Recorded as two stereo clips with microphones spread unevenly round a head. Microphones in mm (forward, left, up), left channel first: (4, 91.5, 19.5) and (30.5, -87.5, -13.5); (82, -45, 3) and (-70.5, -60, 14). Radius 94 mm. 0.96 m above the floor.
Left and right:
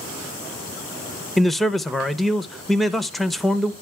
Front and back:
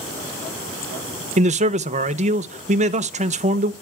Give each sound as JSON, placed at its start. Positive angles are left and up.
{"t": 1.4, "sound": "a man speaking", "azimuth_deg": -160, "distance_m": 0.7}